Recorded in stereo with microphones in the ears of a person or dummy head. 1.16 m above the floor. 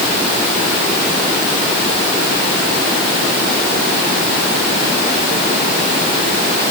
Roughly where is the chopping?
I don't hear chopping.